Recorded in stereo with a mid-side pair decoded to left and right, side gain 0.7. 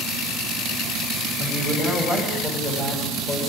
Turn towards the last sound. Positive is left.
turn(degrees=20)